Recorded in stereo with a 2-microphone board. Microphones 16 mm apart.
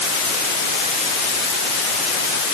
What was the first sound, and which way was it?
Only background noise.